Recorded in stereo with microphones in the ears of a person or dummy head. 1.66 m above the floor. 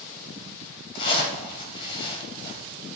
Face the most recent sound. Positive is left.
turn(degrees=25)  # may be behind; listen again after turning